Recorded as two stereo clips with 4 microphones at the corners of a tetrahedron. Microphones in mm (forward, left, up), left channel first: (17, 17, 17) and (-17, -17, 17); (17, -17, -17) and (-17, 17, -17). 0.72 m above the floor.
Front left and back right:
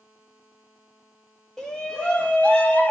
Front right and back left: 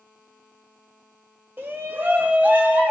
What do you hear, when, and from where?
1.6 s a shout: 120° left, 1.5 m; by 2.9 s 85° left, 1.5 m